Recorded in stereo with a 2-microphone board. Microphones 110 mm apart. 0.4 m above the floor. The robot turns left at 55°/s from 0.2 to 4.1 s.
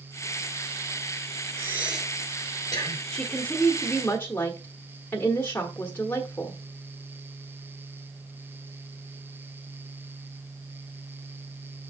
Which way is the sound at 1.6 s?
25° right (ahead or behind).